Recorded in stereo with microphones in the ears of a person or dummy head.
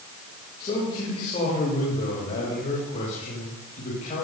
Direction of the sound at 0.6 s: 30° left (ahead or behind).